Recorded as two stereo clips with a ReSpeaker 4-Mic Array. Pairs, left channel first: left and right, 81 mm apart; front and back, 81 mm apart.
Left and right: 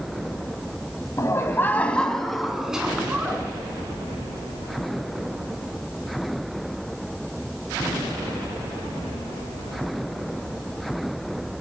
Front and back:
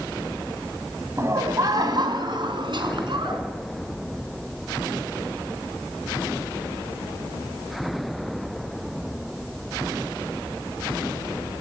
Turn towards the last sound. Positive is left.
turn(degrees=-165)